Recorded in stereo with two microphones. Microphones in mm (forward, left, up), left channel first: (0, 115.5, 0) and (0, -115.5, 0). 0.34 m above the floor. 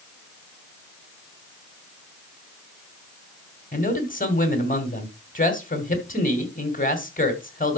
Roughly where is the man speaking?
Left.